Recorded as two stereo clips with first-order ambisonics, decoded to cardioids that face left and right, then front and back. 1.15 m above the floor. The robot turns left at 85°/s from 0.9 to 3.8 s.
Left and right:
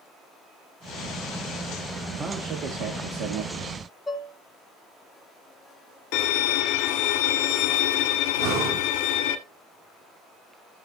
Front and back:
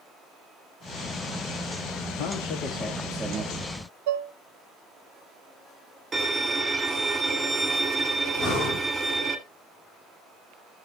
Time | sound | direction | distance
2.2 | a man speaking | 15° right | 1.7 m
4.1 | dishes clattering | 170° left | 1.0 m
6.1 | a violin | 105° left | 1.6 m
8.4 | breathing | 80° right | 6.5 m